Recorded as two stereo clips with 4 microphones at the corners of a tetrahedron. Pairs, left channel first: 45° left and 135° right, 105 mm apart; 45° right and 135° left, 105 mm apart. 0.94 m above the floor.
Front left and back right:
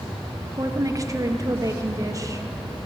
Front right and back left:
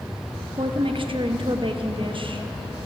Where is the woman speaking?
170° left, 0.8 m.